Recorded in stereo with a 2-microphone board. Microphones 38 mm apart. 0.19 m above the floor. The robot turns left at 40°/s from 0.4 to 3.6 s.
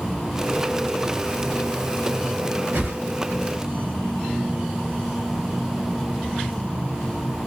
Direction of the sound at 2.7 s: 65° right (ahead or behind).